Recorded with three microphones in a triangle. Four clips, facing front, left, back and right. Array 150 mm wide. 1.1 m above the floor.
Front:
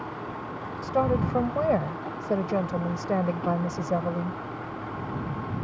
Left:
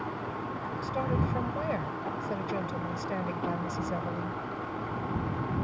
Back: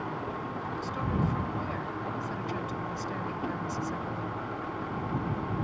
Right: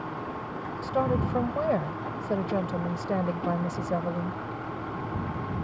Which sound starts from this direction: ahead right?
A woman speaking, at 0.8 s.